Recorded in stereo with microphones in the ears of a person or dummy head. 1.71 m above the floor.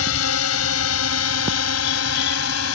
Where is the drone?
80° left.